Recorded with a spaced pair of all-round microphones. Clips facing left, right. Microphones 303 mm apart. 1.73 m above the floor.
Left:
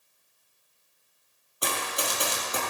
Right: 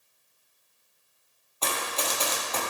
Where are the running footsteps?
15° left (ahead or behind), 2 m.